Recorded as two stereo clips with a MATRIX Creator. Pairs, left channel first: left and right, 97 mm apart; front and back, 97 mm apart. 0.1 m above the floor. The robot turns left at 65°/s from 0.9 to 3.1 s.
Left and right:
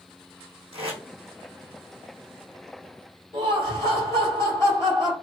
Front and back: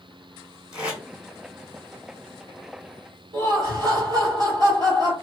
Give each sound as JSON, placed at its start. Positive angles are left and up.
{"t": 0.7, "sound": "tape being pulled", "azimuth_deg": -100, "distance_m": 2.0}
{"t": 3.3, "sound": "laughter", "azimuth_deg": 145, "distance_m": 2.5}